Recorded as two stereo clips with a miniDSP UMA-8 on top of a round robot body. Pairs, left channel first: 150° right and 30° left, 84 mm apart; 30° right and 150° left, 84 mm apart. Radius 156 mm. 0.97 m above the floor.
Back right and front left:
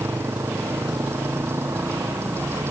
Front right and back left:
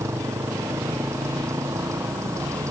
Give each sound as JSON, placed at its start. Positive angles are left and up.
{"t": 0.0, "sound": "a motorcycle", "azimuth_deg": 90}